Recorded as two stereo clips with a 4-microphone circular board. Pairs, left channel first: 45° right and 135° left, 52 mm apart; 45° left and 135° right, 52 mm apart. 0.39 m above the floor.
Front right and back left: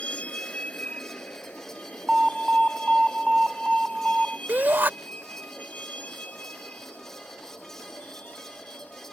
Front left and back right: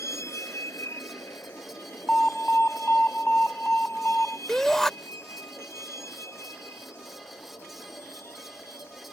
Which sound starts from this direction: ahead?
A vehicle, at 0.0 s.